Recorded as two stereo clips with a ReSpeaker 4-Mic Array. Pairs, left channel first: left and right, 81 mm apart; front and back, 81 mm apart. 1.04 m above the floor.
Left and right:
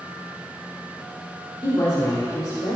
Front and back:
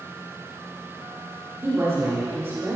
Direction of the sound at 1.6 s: 120° left.